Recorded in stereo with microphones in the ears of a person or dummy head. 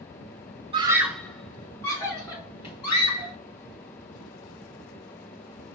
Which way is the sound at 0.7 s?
25° right (ahead or behind).